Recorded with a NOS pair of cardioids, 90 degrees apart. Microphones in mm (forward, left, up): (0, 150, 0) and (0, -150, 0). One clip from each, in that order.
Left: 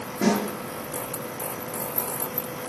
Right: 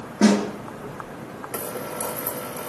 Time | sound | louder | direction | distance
0.2 | a snare drum | right 4 dB | 50° right | 4.5 m